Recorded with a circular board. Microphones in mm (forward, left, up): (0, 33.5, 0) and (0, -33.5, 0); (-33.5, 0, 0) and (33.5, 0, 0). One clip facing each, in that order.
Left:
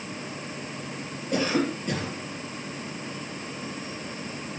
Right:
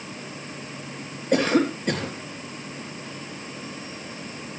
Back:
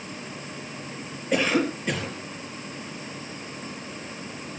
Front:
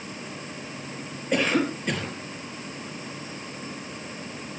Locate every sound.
1.3 s a cough: 90° right, 4 m